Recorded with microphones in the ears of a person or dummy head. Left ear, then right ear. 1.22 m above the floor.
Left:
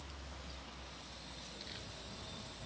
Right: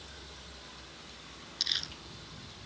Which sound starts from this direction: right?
Crumpling, at 1.6 s.